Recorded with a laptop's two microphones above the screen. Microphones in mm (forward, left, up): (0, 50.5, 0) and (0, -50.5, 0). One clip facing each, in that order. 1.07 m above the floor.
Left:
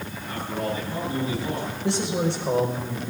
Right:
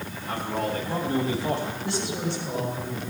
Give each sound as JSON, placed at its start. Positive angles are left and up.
{"t": 0.3, "sound": "a man speaking", "side_deg": -90, "distance_m": 6.5}
{"t": 1.8, "sound": "a man speaking", "side_deg": 85, "distance_m": 5.0}